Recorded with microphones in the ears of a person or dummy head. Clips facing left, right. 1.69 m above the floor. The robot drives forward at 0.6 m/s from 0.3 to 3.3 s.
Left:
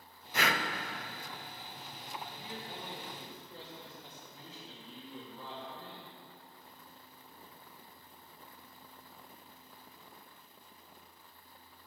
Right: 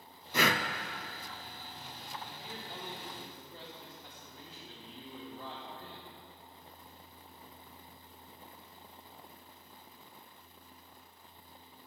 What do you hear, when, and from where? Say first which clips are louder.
0.3 s breathing: right 3 dB; 75° right (ahead or behind), 0.6 m; by 0.6 s 85° right, 0.6 m
2.2 s a man speaking: left 1 dB; 40° left (ahead or behind), 3 m; by 6.1 s 35° left (ahead or behind), 3.5 m